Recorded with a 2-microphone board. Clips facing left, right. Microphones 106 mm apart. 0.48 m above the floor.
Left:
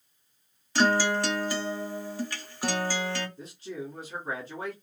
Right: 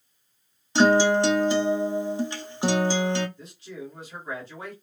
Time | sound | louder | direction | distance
0.8 | a guitar | right 6 dB | 20° right (ahead or behind) | 0.5 m
3.4 | a man speaking | left 2 dB | 45° left (ahead or behind) | 1.6 m